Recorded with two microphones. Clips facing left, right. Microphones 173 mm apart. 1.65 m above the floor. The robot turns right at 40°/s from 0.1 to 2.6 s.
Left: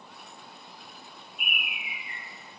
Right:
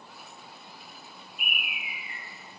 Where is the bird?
55° left, 1.9 m; by 2.2 s 85° left, 1.9 m.